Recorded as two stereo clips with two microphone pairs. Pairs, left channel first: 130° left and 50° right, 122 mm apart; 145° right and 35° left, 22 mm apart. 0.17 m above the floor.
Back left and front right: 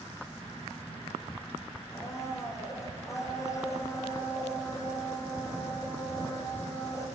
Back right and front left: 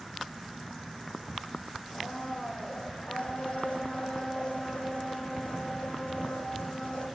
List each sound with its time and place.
1.9 s a blender: 165° right, 9.5 m